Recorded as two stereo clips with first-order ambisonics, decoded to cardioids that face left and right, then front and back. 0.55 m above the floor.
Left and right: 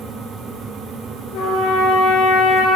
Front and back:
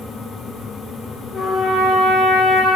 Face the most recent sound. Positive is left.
turn(degrees=75)